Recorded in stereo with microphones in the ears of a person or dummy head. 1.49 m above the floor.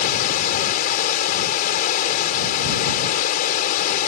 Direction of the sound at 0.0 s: 50° left (ahead or behind).